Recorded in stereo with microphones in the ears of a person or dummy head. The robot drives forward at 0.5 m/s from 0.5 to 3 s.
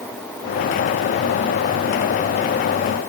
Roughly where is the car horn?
I don't hear a car horn.